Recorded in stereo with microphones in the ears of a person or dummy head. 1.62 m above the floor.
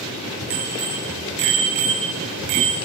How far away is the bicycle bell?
About 9 m.